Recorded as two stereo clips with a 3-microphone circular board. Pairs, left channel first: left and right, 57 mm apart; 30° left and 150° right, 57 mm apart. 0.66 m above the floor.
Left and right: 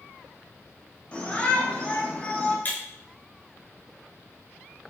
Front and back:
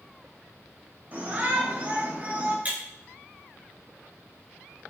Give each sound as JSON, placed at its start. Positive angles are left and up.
{"t": 1.1, "sound": "a shout", "azimuth_deg": 160, "distance_m": 4.0}
{"t": 2.6, "sound": "breaking glass", "azimuth_deg": 145, "distance_m": 4.5}